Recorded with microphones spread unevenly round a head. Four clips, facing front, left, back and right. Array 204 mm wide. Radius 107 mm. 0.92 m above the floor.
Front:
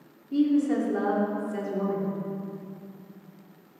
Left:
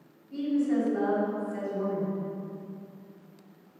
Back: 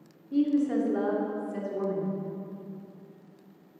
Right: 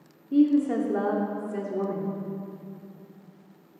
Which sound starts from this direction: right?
A woman speaking, at 0.3 s.